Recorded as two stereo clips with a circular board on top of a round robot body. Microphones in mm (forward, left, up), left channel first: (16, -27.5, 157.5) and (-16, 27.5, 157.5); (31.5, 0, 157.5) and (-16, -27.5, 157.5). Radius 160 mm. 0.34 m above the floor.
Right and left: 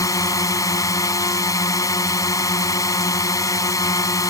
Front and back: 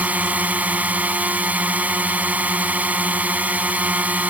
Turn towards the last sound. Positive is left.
turn(degrees=-90)